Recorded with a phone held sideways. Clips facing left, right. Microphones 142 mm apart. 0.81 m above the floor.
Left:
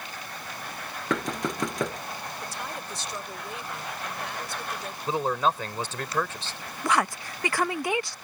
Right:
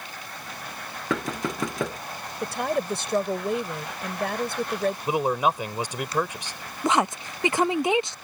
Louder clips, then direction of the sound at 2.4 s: Right 10 dB; 70° right (ahead or behind).